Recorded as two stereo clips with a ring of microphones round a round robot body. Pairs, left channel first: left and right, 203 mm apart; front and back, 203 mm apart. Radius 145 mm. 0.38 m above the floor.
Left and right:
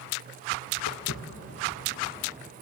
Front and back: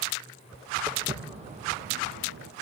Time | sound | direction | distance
0.9 | footsteps | 110° left | 1.3 m